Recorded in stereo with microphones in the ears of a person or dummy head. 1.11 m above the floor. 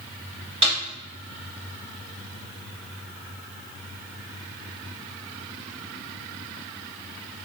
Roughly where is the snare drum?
Right.